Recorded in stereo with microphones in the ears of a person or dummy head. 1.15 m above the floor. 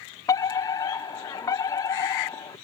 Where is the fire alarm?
20° left (ahead or behind).